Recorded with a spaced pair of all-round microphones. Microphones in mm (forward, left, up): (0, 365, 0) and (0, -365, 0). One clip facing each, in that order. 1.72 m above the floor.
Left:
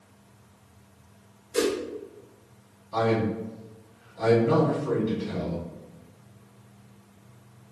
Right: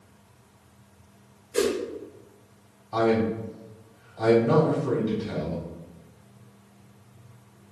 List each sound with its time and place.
1.5 s a whoosh: 40° left (ahead or behind), 1.3 m
2.9 s a man speaking: 25° right (ahead or behind), 2.0 m